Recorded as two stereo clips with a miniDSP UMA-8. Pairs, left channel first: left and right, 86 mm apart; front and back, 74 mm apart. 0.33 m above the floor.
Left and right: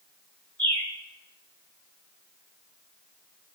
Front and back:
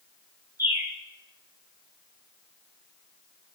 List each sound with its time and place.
0.6 s a bird: 155° left, 1.8 m